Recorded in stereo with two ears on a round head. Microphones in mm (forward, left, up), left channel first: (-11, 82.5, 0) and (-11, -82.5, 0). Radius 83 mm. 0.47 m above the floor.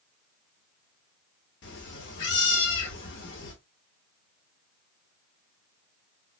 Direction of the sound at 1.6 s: 70° left (ahead or behind).